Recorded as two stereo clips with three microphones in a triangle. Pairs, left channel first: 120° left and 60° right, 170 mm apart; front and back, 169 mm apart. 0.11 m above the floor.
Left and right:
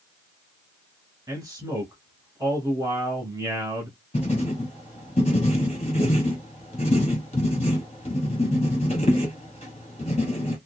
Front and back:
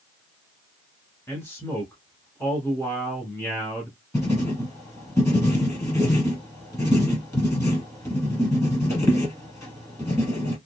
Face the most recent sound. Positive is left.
turn(degrees=75)